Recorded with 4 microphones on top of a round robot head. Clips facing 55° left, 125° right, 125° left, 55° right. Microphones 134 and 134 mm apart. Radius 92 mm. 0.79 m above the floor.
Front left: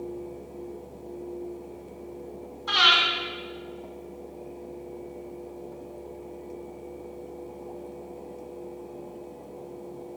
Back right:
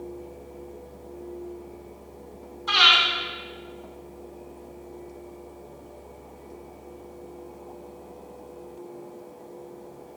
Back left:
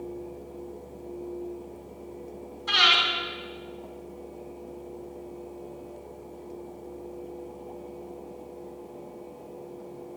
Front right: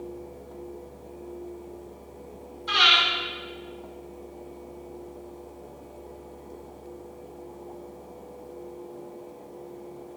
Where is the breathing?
150° left, 4.5 m.